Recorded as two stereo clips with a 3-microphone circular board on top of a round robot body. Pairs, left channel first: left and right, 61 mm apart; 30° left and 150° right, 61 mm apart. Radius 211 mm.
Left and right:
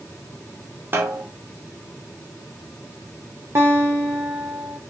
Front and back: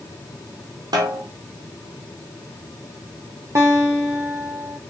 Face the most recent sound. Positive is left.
turn(degrees=-125)